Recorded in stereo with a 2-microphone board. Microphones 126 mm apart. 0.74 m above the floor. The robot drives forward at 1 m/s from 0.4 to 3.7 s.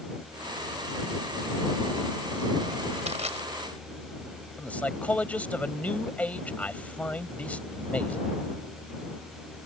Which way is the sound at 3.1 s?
65° right (ahead or behind).